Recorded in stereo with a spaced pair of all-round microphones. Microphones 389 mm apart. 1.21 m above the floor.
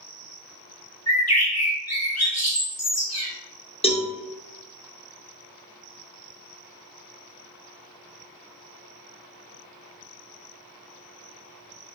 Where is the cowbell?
15° left (ahead or behind), 0.6 m.